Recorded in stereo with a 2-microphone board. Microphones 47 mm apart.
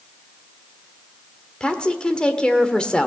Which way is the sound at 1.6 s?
20° left (ahead or behind).